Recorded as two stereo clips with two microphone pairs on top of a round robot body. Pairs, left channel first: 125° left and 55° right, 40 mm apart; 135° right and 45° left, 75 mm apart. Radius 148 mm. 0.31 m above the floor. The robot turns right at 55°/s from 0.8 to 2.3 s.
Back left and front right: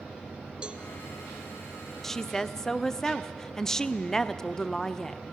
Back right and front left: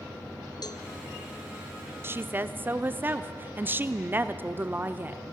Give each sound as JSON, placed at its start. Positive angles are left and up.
{"t": 0.6, "sound": "a cowbell", "azimuth_deg": -125, "distance_m": 1.1}
{"t": 2.0, "sound": "a woman speaking", "azimuth_deg": 75, "distance_m": 0.9}